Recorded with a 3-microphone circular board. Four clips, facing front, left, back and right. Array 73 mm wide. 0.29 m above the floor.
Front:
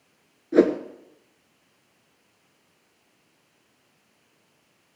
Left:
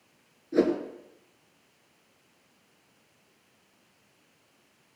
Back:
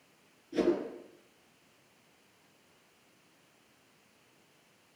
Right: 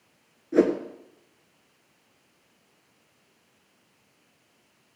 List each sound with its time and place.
0.5 s a whoosh: 10° right, 1.4 m